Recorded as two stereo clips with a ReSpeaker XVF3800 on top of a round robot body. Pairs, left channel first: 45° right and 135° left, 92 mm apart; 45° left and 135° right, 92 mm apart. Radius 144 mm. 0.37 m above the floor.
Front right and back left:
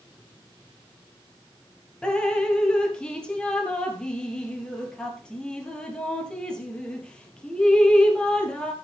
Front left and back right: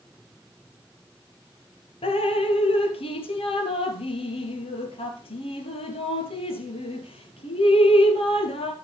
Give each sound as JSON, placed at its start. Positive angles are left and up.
{"t": 2.0, "sound": "dripping", "azimuth_deg": 35, "distance_m": 1.8}